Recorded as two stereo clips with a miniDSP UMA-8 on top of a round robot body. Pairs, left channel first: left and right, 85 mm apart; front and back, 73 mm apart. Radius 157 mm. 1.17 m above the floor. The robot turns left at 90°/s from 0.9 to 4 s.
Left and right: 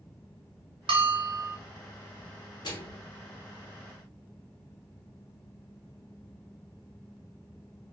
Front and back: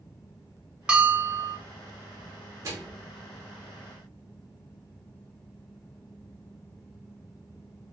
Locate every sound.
0.9 s a bell: 100° right, 0.7 m; by 1.6 s 165° right, 0.7 m
2.6 s a microwave: 130° left, 0.8 m; by 3.0 s 95° left, 0.8 m